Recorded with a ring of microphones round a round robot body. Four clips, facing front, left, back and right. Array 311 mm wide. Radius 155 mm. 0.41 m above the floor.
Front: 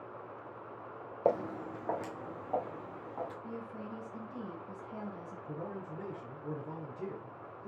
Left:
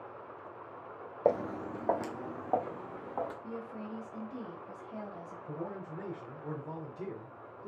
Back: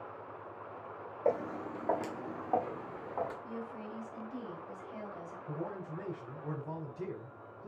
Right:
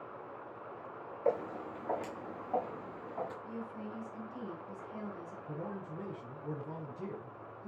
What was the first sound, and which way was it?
Footsteps, 60° left.